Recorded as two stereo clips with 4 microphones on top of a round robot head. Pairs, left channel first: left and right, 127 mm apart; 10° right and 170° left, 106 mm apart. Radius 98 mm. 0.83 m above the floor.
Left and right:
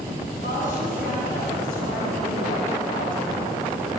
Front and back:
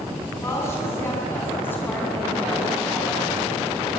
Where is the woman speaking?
55° left, 7 m; by 3.5 s 75° left, 5.5 m.